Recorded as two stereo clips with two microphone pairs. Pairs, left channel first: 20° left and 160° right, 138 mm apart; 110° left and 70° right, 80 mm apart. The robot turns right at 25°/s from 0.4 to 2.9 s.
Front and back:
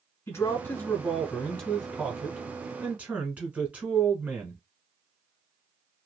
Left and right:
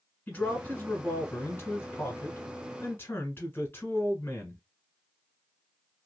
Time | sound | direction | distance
0.3 | a man speaking | 70° left | 1.1 m